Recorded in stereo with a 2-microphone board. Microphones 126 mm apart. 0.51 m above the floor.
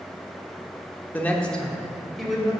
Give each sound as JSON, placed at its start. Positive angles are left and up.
{"t": 1.1, "sound": "a woman speaking", "side_deg": 15, "distance_m": 0.9}